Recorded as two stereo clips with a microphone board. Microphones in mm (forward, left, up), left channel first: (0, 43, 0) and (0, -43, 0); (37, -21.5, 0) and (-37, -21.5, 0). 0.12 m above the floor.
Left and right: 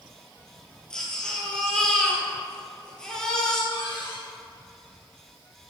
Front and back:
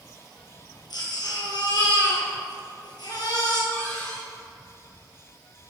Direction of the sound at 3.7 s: 65° left.